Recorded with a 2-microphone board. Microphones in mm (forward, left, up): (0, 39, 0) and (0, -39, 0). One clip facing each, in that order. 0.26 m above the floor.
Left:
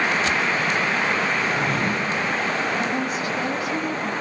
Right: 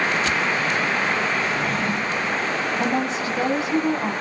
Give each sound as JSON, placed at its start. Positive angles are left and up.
{"t": 1.4, "sound": "a drawer", "side_deg": 65, "distance_m": 8.0}
{"t": 2.8, "sound": "a woman speaking", "side_deg": -30, "distance_m": 1.7}